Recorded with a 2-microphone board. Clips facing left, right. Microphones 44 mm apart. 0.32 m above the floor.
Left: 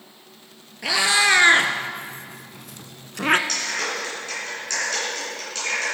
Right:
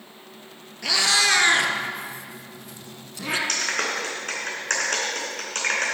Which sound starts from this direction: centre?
A cat meowing, at 0.8 s.